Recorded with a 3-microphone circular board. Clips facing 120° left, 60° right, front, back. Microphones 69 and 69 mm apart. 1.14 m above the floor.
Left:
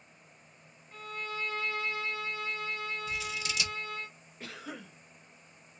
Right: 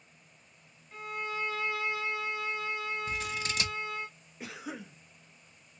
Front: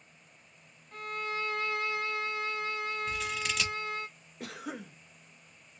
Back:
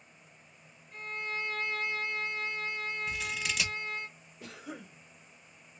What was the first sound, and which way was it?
A violin, 20° left.